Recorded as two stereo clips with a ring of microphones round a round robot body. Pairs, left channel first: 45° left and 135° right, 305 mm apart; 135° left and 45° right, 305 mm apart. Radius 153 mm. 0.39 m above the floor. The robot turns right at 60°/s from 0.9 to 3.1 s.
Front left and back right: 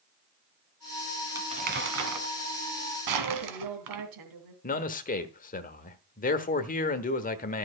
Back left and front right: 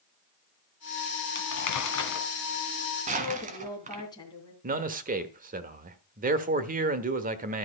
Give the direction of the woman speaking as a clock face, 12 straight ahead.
5 o'clock.